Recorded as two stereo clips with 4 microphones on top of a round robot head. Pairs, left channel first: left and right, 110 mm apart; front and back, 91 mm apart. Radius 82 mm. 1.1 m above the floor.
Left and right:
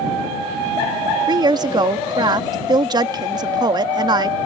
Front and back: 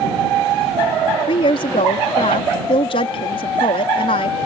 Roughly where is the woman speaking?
Ahead right.